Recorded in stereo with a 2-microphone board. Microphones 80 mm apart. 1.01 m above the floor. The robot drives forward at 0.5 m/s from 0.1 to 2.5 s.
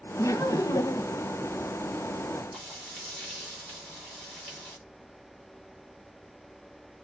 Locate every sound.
0.2 s laughter: 40° left (ahead or behind), 0.9 m; by 1.2 s 55° left (ahead or behind), 0.7 m
2.5 s frying: 5° right (ahead or behind), 3.5 m